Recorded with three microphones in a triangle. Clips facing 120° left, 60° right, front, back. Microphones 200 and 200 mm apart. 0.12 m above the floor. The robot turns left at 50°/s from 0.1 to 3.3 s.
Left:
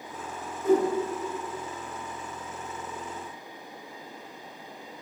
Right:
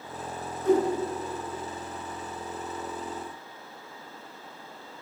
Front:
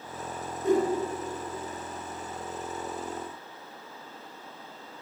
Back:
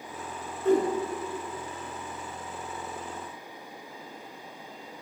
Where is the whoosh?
55° left, 1.7 m; by 0.9 s 40° left, 1.7 m.